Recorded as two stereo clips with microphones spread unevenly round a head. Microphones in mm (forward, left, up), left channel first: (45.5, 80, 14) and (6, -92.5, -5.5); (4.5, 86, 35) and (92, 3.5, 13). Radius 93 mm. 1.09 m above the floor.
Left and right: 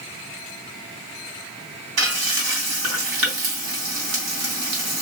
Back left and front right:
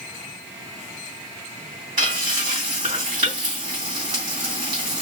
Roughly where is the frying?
Right.